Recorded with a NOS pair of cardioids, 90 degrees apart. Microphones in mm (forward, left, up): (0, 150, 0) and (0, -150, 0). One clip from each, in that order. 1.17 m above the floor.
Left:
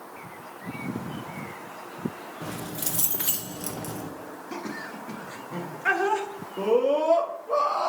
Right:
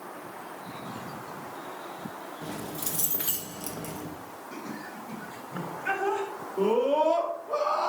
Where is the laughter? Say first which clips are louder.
Left 5 dB; 60° left, 1.5 m.